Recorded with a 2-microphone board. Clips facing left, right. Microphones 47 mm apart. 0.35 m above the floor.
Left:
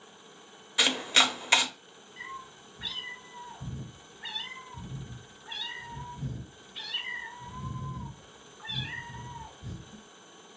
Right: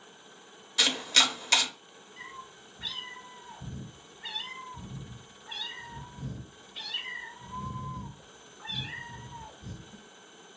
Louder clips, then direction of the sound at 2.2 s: Left 3 dB; 10° left (ahead or behind).